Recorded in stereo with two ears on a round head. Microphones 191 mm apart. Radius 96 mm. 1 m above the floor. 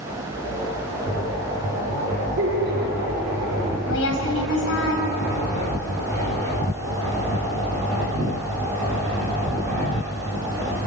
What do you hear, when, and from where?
2.4 s laughter: 60° right (ahead or behind), 4 m; by 3.8 s 55° right (ahead or behind), 5 m
3.9 s a woman speaking: 65° left (ahead or behind), 5 m